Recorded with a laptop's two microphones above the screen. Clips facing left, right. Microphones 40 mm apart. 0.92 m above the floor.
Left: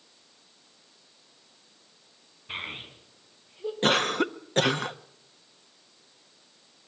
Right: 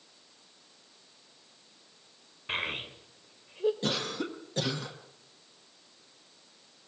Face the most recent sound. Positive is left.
turn(degrees=60)  # may be behind; listen again after turning